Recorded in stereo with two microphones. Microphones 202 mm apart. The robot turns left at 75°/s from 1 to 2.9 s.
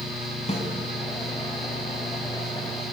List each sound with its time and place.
0.5 s a snare drum: 35° left (ahead or behind), 4.5 m